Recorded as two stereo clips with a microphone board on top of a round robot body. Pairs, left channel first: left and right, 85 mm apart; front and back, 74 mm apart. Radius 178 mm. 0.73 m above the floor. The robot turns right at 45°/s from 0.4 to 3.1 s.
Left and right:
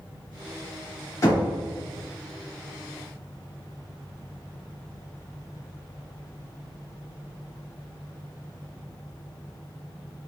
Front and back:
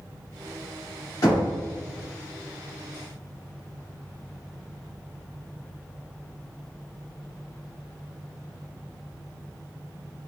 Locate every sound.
1.2 s knocking: 35° left, 1.9 m; by 1.5 s 45° left, 1.9 m